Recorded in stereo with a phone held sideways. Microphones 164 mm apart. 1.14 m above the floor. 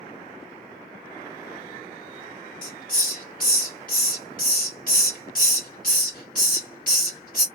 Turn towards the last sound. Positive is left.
turn(degrees=60)  # may be behind; listen again after turning